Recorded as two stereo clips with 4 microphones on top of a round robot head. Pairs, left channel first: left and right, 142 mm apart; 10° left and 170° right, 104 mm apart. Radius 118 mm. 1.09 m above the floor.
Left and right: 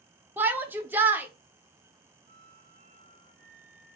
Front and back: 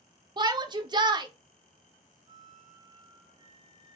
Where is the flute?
125° right, 2 m.